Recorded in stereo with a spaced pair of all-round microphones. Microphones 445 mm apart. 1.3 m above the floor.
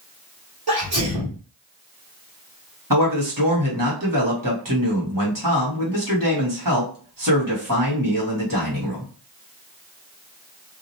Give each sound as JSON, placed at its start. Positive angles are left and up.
{"t": 0.7, "sound": "a sneeze", "side_deg": -55, "distance_m": 1.2}
{"t": 2.9, "sound": "a man speaking", "side_deg": -45, "distance_m": 1.4}